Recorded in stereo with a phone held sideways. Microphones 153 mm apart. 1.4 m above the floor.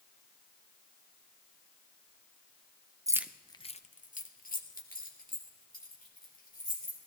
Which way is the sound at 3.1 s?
25° right (ahead or behind).